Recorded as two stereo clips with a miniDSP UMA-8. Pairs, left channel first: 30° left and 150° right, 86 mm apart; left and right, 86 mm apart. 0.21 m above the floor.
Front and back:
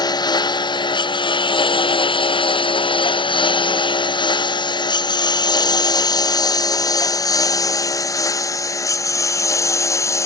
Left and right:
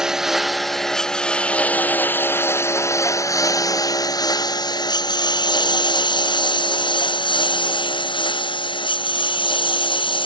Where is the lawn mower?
5° right; by 10.3 s 85° left.